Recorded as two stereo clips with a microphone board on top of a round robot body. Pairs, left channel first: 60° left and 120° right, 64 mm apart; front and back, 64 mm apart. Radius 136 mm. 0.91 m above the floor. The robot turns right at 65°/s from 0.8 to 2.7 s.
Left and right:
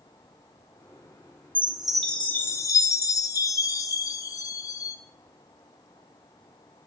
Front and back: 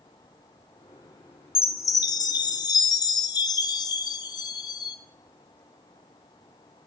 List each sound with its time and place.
1.6 s a chime: 55° right, 0.7 m; by 5.0 s 20° left, 0.7 m